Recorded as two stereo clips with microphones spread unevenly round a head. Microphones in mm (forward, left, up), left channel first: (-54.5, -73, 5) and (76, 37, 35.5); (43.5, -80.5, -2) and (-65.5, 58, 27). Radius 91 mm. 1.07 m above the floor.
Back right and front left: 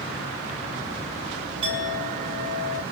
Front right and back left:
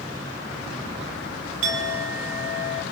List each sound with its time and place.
1.6 s a clink: 105° left, 2 m